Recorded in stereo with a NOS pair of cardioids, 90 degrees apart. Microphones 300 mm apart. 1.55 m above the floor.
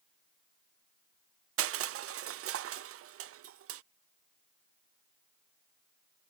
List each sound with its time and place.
1.6 s crushing: 50° right